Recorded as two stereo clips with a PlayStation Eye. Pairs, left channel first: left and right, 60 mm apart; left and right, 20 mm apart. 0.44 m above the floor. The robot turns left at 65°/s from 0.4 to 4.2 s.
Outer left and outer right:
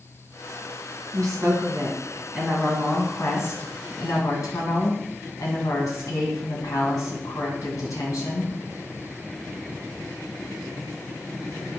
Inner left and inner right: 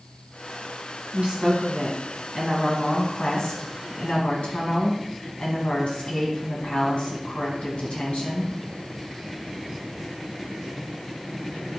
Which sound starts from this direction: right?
A woman speaking, at 1.1 s.